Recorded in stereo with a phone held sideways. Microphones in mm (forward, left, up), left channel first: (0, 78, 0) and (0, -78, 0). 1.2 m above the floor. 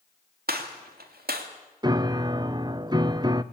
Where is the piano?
25° right (ahead or behind), 0.7 m.